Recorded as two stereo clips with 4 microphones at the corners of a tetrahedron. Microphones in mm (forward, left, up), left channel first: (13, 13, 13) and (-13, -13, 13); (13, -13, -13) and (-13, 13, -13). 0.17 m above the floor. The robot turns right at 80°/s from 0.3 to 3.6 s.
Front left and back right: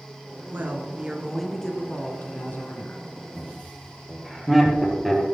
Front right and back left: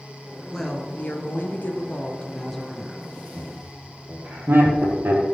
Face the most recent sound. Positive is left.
turn(degrees=145)